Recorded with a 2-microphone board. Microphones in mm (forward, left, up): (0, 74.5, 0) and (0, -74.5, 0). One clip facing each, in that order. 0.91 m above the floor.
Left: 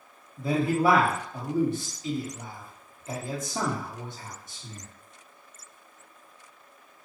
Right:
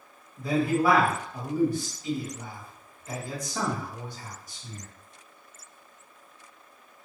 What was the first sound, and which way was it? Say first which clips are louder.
A man speaking: even; 25° left (ahead or behind).